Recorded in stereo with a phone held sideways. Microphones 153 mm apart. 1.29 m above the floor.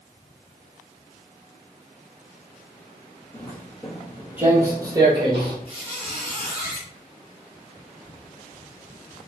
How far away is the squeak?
About 1.8 m.